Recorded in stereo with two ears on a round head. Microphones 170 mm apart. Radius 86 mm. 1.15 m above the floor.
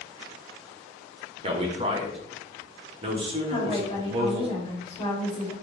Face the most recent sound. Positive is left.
turn(degrees=25)  # may be behind; listen again after turning